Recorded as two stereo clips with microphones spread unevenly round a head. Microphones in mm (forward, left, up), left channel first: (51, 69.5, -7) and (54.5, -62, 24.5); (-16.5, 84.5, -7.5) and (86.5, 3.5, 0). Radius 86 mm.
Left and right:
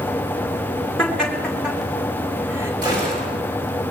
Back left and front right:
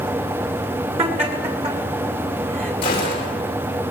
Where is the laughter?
5° left, 5 m; by 2.7 s 20° right, 5 m.